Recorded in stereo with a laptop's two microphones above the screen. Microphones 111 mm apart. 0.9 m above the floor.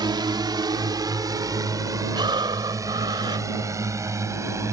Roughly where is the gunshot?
I don't hear a gunshot.